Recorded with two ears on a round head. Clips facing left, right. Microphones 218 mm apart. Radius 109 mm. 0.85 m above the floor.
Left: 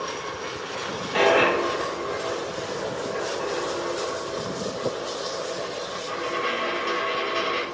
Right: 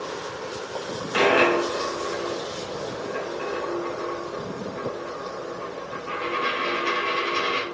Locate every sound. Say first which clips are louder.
1.1 s a dropped coin: even; 45° right (ahead or behind), 1.9 m